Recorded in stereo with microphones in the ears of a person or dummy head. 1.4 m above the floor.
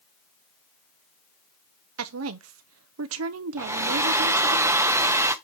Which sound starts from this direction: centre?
A hair dryer, at 3.6 s.